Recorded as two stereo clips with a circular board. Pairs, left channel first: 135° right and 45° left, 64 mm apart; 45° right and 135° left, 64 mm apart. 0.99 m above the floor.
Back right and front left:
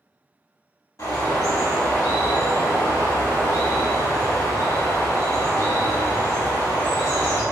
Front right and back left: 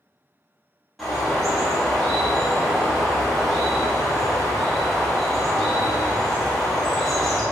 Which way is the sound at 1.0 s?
135° right.